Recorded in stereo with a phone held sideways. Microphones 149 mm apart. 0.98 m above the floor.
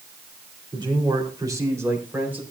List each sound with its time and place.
0.7 s a man speaking: 35° right (ahead or behind), 3.5 m; by 2.4 s 10° right (ahead or behind), 4 m